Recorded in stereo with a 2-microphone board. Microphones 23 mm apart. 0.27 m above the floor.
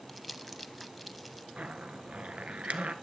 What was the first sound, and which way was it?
Crumpling, centre (ahead or behind).